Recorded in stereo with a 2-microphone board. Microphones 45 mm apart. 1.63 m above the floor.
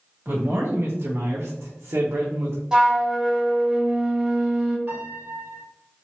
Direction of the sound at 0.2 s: 45° right (ahead or behind).